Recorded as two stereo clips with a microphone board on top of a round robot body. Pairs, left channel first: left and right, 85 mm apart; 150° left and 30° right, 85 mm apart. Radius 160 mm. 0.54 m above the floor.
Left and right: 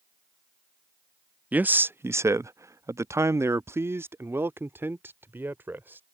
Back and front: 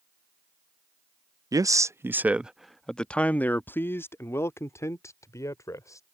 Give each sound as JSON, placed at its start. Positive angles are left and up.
{"t": 1.5, "sound": "a man speaking", "azimuth_deg": -25}